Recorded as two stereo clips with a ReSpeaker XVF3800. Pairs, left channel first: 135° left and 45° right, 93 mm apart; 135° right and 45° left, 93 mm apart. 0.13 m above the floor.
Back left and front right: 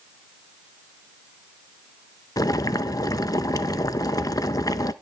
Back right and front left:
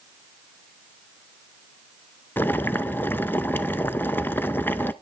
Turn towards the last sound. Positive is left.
turn(degrees=165)